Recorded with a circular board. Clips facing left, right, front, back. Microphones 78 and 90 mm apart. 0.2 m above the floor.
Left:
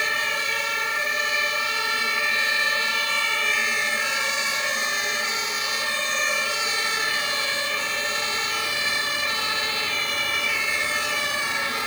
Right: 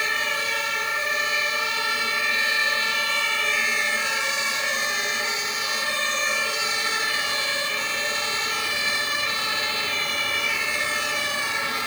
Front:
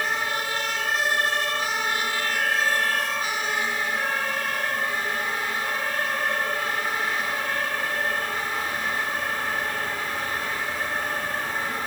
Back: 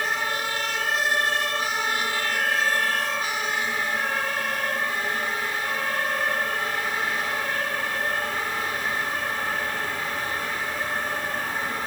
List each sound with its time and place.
Only background noise.